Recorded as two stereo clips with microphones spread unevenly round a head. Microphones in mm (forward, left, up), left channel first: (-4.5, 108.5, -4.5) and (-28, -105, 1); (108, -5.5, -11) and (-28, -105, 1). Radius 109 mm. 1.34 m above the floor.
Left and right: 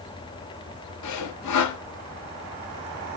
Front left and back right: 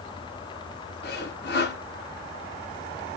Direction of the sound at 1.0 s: 90° left.